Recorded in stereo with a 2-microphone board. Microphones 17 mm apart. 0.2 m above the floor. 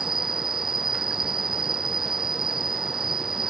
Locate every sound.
0.0 s an insect: 25° right (ahead or behind)